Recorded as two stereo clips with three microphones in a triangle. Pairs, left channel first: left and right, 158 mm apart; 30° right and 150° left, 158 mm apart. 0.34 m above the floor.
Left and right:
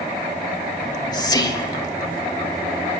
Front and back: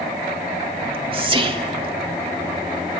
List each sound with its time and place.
0.8 s whispering: 135° left, 1.1 m